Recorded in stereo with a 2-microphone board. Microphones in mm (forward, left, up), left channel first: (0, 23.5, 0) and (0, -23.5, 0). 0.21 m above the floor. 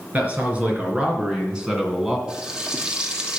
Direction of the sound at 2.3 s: 20° right (ahead or behind).